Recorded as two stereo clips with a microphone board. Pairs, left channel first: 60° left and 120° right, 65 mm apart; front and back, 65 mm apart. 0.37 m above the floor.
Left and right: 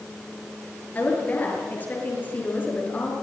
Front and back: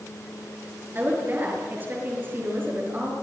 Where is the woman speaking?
120° left, 7.5 m.